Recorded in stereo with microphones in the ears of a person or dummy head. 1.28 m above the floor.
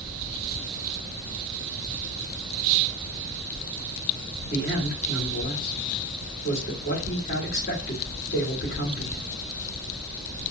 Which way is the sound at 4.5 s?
50° left (ahead or behind).